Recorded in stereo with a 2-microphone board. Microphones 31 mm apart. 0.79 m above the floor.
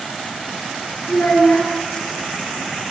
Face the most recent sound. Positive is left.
turn(degrees=65)  # may be behind; listen again after turning